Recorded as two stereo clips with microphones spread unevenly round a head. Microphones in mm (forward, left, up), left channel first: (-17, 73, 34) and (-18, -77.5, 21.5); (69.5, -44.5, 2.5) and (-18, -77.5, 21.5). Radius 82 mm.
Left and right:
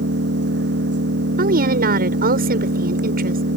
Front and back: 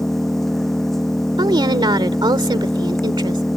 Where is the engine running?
65° right.